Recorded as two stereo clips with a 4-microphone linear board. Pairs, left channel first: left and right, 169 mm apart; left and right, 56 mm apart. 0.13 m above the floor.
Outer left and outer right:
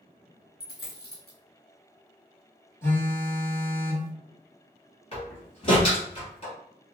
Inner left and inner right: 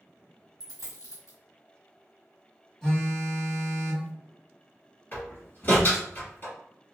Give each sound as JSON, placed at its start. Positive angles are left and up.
{"t": 0.6, "sound": "a dropped coin", "side_deg": 70, "distance_m": 1.3}
{"t": 2.8, "sound": "a phone buzzing", "side_deg": 15, "distance_m": 1.4}
{"t": 5.1, "sound": "a door slam", "side_deg": 35, "distance_m": 1.9}